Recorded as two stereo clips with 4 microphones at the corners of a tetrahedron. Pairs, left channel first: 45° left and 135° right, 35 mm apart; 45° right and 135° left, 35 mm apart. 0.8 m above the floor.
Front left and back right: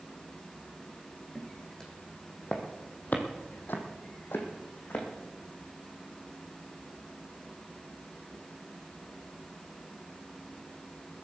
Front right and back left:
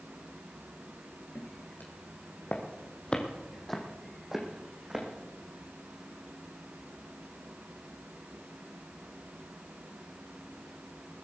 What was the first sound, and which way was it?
Footsteps, 35° right.